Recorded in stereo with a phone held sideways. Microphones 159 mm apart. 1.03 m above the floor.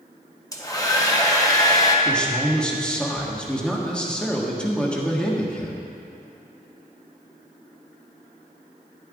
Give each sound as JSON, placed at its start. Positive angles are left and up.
{"t": 0.5, "sound": "a hair dryer", "side_deg": 20, "distance_m": 1.0}
{"t": 2.0, "sound": "a man speaking", "side_deg": 5, "distance_m": 1.3}